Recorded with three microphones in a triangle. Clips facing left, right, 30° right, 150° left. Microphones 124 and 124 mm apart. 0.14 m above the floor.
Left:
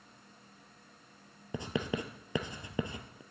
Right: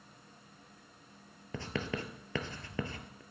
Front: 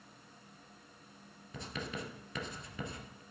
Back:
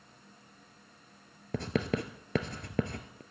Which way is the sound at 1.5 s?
160° left.